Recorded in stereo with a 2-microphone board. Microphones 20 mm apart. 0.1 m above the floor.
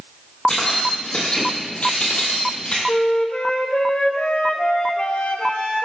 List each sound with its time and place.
0.5 s keys jangling: 50° left (ahead or behind), 2.5 m; by 2.8 s 60° left (ahead or behind), 2 m
2.9 s a flute: 60° left (ahead or behind), 0.7 m